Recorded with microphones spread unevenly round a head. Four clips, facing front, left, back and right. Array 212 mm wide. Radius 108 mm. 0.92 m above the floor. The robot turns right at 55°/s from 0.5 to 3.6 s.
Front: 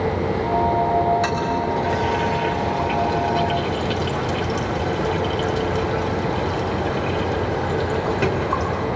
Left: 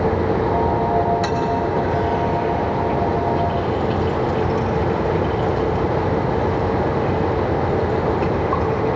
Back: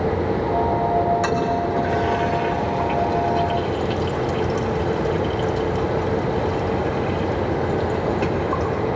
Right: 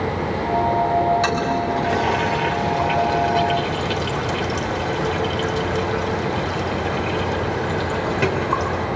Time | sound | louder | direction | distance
1.2 | a toilet flushing | left 1 dB, back 1 dB | 170° right | 3.5 m